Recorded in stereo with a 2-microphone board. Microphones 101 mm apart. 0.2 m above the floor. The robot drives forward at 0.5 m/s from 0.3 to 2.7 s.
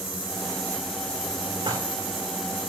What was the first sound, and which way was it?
Dishes clattering, 50° right (ahead or behind).